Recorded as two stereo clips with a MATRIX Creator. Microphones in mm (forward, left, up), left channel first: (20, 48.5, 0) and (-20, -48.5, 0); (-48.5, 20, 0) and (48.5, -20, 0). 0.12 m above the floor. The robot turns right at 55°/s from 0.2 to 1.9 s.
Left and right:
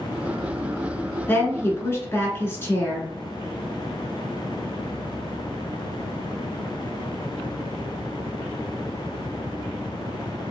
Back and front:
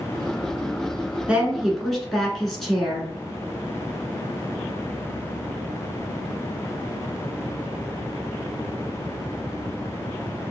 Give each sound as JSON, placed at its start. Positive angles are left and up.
{"t": 1.3, "sound": "a woman speaking", "azimuth_deg": 40, "distance_m": 1.1}